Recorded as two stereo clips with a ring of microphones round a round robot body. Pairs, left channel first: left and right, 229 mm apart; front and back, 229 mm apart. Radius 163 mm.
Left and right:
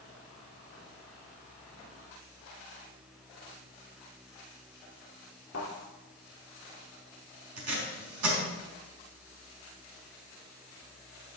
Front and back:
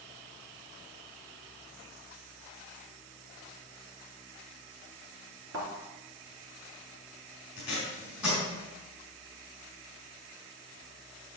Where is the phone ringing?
I don't hear a phone ringing.